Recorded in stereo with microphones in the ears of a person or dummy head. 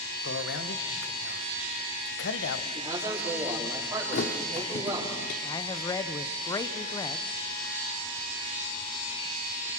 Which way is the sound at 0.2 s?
70° left (ahead or behind).